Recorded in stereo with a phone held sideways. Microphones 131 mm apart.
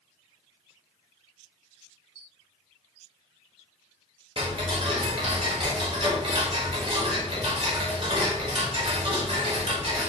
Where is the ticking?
40° right (ahead or behind), 0.7 m.